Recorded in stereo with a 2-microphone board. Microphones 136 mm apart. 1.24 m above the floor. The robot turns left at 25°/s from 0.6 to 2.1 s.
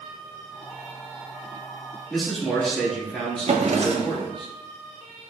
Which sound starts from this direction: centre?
A man speaking, at 2.1 s.